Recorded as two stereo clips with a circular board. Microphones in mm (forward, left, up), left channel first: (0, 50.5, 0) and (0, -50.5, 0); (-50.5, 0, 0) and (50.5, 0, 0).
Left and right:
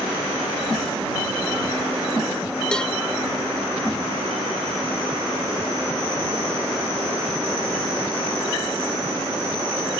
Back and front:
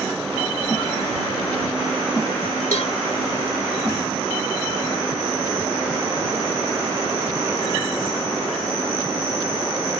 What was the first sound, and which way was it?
A cowbell, 170° left.